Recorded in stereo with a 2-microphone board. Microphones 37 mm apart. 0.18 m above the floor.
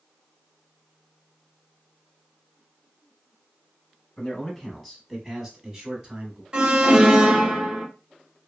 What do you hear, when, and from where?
4.2 s a man speaking: 15° left (ahead or behind), 1.3 m; by 6.4 s 30° right (ahead or behind), 1.3 m
6.5 s an alarm: 25° right (ahead or behind), 0.8 m